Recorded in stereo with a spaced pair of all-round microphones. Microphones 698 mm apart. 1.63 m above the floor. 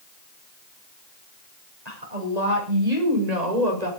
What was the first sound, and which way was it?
A woman speaking, 70° right (ahead or behind).